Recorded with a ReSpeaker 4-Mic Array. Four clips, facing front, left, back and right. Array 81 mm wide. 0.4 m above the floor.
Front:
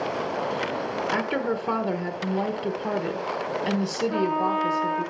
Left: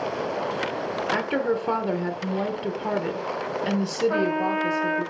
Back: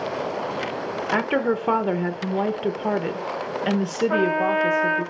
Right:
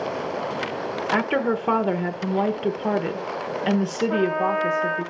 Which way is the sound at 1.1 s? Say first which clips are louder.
Right 3 dB, back 6 dB; 140° right.